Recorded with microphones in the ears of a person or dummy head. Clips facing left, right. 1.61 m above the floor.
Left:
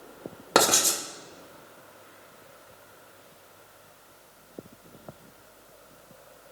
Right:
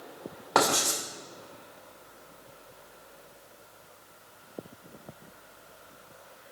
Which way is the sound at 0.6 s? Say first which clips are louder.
Left 2 dB; 40° left (ahead or behind).